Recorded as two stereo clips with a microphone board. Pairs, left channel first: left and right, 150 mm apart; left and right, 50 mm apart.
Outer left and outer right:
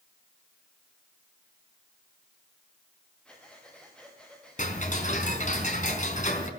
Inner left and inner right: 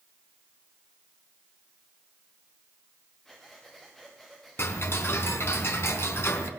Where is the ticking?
55° left (ahead or behind), 4 m.